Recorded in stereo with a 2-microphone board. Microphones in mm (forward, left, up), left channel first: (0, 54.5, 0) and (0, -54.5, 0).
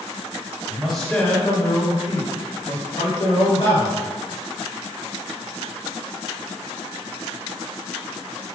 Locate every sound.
0.7 s a man speaking: 10° right (ahead or behind), 1.1 m; by 4.0 s 70° left (ahead or behind), 1.9 m